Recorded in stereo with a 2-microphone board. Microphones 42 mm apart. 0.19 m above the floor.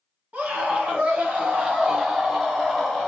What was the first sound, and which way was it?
A scream, 40° right (ahead or behind).